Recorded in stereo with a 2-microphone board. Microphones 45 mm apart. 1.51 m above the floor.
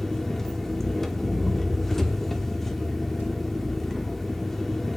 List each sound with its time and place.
0.0 s an engine running: 5° left (ahead or behind), 1.2 m